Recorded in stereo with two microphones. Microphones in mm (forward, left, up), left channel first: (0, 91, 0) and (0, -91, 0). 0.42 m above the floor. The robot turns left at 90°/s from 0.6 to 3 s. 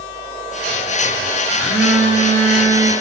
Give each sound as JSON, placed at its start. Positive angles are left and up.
{"t": 1.6, "sound": "a phone buzzing", "azimuth_deg": 5, "distance_m": 0.5}